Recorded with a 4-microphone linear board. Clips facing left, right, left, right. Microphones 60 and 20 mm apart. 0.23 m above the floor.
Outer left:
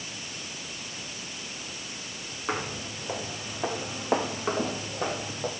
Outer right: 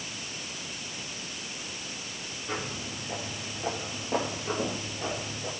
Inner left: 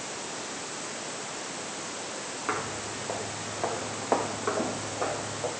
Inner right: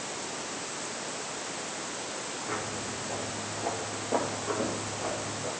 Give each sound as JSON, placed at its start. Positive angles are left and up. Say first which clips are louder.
{"t": 2.5, "sound": "footsteps", "louder": "outer left 4 dB, inner left 4 dB", "side_deg": 75, "distance_m": 6.5}